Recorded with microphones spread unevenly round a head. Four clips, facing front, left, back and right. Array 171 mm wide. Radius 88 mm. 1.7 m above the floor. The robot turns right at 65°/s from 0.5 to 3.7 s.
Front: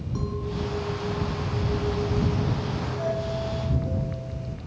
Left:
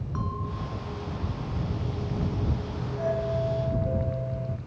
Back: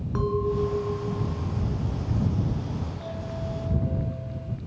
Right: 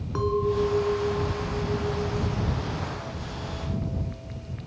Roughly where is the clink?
Behind right.